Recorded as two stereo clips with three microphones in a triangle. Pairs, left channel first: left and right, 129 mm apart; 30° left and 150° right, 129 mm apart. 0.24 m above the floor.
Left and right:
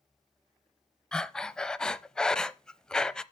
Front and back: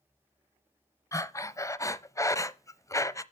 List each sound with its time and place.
1.1 s breathing: 15° left, 0.5 m